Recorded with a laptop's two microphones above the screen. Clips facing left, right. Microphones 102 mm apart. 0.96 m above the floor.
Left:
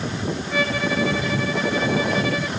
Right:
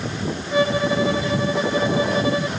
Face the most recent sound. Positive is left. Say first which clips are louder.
# right 5 dB
turn(degrees=-25)  # may be behind; listen again after turning